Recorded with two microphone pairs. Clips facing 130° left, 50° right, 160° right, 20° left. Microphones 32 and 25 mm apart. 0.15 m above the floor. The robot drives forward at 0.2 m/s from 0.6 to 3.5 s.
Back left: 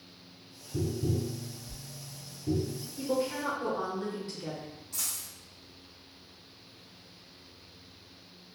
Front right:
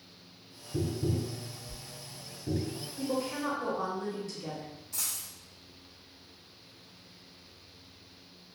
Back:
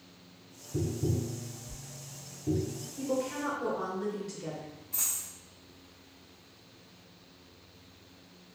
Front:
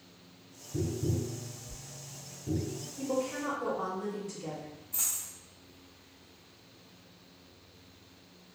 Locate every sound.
0.7 s tapping: 120° right, 1.4 m; by 2.8 s 130° right, 1.6 m
3.0 s a woman speaking: straight behind, 1.6 m
4.9 s a dropped coin: 135° right, 2.0 m